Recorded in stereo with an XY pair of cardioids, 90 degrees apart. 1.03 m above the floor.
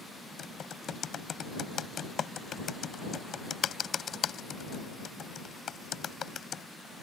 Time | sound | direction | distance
0.4 | typing on a keyboard | 55° left | ?